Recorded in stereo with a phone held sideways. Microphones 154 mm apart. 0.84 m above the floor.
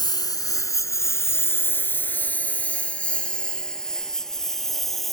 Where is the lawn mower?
25° left (ahead or behind); by 5.1 s centre (ahead or behind).